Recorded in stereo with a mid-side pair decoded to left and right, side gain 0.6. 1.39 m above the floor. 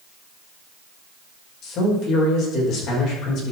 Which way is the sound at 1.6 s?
60° left.